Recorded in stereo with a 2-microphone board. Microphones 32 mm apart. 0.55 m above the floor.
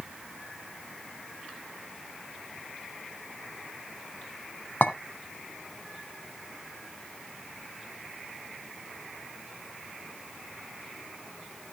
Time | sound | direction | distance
4.8 | a clink | 75° left (ahead or behind) | 2.5 m